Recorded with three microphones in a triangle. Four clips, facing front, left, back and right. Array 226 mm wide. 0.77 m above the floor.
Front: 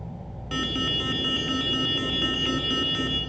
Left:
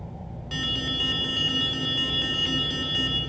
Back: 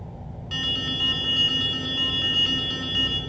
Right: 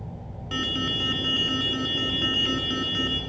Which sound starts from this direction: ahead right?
An alarm, at 0.5 s.